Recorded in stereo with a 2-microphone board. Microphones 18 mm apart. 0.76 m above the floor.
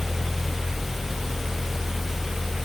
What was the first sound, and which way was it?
Only background noise.